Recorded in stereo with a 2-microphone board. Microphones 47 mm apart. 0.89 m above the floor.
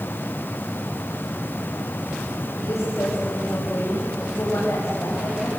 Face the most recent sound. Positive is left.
turn(degrees=80)